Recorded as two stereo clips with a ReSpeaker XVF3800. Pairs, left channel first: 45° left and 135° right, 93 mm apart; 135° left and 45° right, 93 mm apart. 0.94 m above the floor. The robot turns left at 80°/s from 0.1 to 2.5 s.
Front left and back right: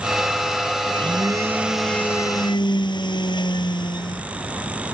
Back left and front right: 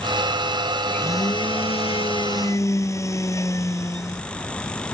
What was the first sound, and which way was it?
A blender, 150° right.